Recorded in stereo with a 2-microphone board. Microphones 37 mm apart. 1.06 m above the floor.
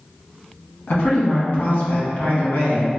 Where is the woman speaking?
50° left (ahead or behind), 1.3 m.